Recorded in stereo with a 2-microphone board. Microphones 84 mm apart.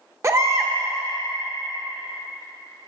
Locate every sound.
0.2 s a baby crying: 35° right (ahead or behind), 0.6 m